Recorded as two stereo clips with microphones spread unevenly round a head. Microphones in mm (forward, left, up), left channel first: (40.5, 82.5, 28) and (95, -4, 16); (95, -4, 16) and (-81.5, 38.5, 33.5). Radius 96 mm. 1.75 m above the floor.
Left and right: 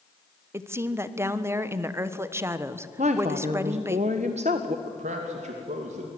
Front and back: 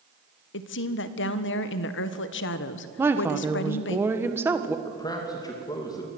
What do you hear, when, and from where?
0.5 s a woman speaking: 10° left, 1.3 m
3.0 s a woman speaking: 115° right, 1.3 m
4.8 s a man speaking: 85° right, 2.5 m